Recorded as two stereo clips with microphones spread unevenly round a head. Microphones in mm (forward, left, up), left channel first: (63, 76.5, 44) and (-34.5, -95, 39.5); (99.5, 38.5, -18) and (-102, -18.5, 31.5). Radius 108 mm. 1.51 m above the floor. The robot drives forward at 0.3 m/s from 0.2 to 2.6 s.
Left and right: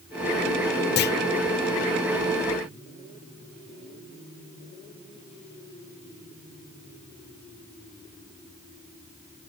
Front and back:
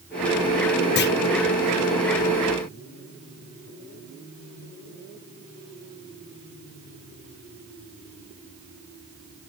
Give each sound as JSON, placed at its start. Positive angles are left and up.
{"t": 1.0, "sound": "a clunk", "azimuth_deg": 30, "distance_m": 0.5}